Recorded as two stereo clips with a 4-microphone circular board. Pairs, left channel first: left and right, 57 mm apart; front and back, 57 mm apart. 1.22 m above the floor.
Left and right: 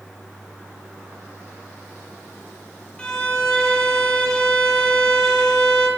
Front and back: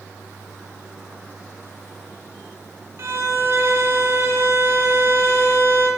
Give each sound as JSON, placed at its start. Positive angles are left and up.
{"t": 3.0, "sound": "a violin", "azimuth_deg": 160, "distance_m": 1.7}